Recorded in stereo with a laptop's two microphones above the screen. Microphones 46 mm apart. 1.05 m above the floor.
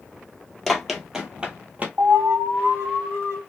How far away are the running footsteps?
About 1.1 m.